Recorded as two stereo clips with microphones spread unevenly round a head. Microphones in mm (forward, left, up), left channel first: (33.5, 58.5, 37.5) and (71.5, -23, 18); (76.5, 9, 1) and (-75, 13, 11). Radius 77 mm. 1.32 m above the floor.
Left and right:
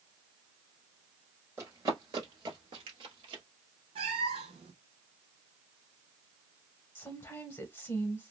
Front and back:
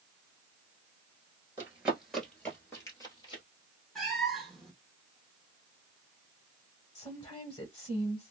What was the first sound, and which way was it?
Running footsteps, 135° right.